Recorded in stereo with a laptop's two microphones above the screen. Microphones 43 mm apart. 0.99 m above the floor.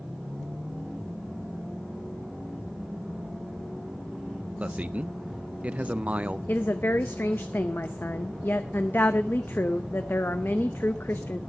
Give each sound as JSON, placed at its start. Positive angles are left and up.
{"t": 4.6, "sound": "a man speaking", "side_deg": -35, "distance_m": 0.5}
{"t": 6.5, "sound": "a woman speaking", "side_deg": 65, "distance_m": 0.6}